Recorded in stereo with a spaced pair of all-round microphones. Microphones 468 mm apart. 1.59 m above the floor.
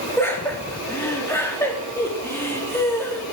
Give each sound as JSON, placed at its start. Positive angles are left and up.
{"t": 0.2, "sound": "laughter", "side_deg": 5, "distance_m": 2.5}